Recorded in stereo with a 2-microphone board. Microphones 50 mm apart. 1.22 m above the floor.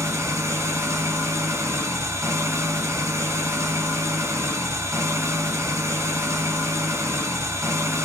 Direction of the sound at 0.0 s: 75° right (ahead or behind).